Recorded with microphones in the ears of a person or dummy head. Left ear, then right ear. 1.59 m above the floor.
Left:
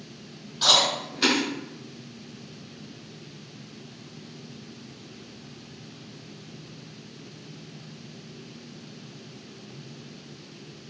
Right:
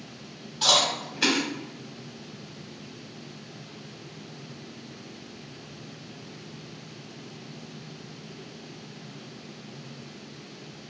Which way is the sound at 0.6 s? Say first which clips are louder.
Left 2 dB; 10° right (ahead or behind).